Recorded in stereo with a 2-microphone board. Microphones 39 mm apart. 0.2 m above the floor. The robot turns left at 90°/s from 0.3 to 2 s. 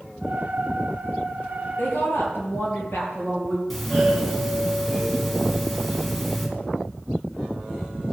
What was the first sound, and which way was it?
A woman speaking, 50° left (ahead or behind).